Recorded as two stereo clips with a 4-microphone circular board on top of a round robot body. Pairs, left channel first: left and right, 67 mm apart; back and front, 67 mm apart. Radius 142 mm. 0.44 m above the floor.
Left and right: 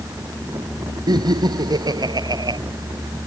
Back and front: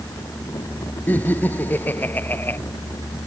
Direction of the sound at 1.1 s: 115° right.